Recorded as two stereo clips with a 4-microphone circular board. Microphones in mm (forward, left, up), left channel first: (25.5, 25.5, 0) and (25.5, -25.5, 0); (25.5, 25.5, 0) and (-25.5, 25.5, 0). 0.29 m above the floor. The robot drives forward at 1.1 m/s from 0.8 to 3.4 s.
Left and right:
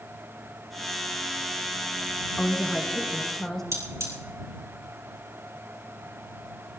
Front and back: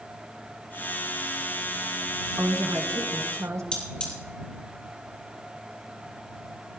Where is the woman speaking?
170° left, 2 m; by 3.6 s 175° left, 3 m.